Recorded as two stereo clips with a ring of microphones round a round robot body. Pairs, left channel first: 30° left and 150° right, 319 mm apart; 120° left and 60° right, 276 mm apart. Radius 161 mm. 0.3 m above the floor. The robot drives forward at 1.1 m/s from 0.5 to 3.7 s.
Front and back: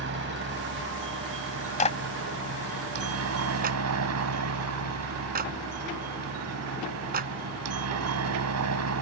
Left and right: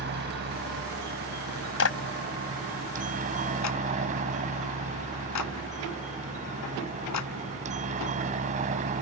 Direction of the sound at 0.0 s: 105° right.